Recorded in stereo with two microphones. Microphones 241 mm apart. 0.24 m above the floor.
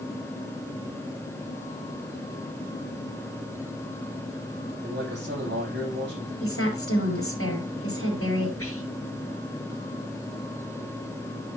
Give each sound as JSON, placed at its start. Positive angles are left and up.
{"t": 4.7, "sound": "a man speaking", "side_deg": -50, "distance_m": 9.0}
{"t": 6.4, "sound": "a woman speaking", "side_deg": 70, "distance_m": 5.0}
{"t": 8.6, "sound": "whispering", "side_deg": 70, "distance_m": 3.5}